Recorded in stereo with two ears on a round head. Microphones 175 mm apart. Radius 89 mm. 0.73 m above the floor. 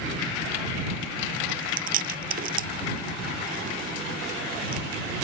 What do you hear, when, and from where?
1.5 s chewing: 50° right (ahead or behind)